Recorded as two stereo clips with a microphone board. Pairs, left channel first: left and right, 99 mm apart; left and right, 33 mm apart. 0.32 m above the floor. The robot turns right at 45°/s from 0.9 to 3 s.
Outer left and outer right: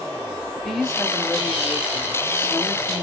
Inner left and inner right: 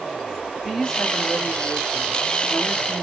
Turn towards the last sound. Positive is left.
turn(degrees=25)  # may be behind; listen again after turning